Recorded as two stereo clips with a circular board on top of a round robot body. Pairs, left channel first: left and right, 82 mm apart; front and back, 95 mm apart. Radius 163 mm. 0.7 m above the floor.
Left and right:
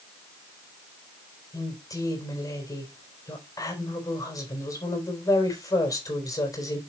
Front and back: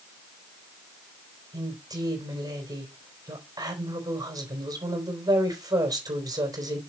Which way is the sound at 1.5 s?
135° left.